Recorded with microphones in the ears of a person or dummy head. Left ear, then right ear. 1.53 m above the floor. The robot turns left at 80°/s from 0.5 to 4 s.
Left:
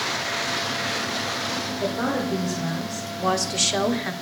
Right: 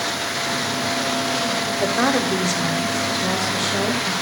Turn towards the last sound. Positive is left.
turn(degrees=80)